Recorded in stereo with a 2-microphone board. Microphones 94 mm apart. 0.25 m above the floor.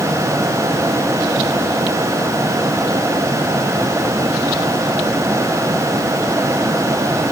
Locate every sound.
Only background noise.